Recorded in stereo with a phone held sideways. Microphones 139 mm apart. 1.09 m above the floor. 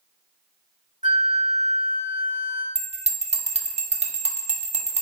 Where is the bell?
55° right (ahead or behind), 0.7 m.